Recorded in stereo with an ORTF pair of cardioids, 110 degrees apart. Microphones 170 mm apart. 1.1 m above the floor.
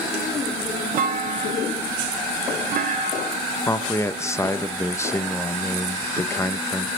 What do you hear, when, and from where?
1.0 s a clunk: 65° right, 1.0 m
3.7 s a man speaking: 15° left, 0.8 m